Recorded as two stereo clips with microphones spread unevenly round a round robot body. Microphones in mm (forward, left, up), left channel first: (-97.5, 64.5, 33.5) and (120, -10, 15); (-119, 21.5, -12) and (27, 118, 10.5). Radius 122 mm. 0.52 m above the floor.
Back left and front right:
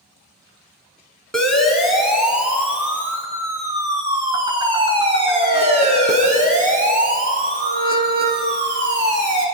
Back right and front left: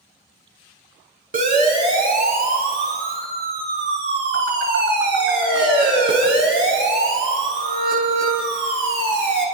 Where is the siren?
75° left, 6.5 m; by 9.4 s 20° left, 7 m.